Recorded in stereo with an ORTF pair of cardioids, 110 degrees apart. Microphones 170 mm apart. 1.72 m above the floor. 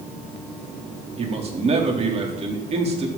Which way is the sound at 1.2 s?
35° right.